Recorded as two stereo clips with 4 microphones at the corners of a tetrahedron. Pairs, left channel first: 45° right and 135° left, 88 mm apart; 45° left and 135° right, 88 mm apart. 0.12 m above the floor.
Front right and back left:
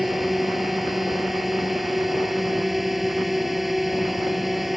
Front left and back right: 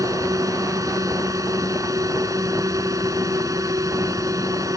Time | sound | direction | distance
0.0 | a drone | 135° right | ?